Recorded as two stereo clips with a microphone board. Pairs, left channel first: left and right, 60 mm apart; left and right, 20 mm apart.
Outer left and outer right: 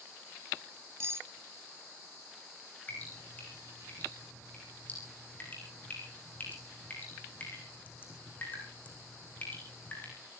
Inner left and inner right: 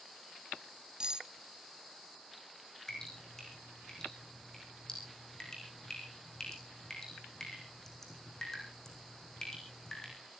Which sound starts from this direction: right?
Cutlery clinking, at 1.0 s.